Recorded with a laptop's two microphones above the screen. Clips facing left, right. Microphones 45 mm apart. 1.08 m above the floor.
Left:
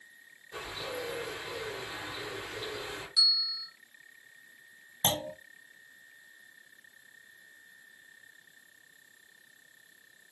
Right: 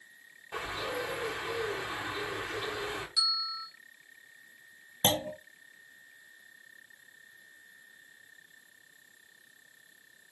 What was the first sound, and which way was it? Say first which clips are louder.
A bird: right 3 dB; 65° right (ahead or behind).